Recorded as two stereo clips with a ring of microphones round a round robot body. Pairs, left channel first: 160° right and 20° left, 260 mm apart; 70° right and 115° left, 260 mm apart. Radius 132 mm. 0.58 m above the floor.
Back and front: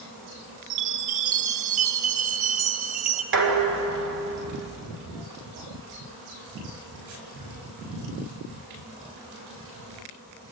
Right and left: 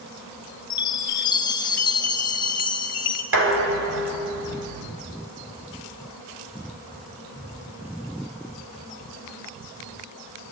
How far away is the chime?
About 1.5 m.